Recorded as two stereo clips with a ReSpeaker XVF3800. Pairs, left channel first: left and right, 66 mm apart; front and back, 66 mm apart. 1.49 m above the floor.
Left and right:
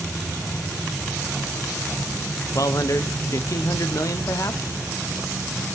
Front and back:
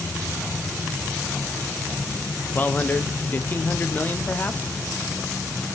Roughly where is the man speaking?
Ahead left.